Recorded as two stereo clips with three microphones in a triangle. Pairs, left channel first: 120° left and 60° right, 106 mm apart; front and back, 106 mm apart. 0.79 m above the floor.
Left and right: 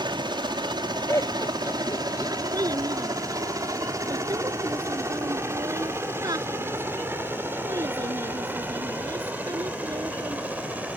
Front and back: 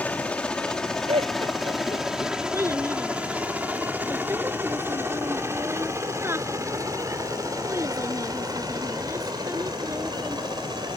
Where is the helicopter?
70° right; by 11.0 s 135° right.